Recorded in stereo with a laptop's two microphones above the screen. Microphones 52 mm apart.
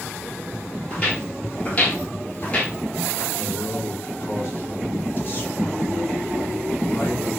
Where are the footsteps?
25° left (ahead or behind), 1.3 m.